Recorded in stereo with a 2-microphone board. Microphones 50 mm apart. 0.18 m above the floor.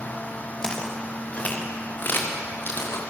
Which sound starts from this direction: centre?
Footsteps, at 0.6 s.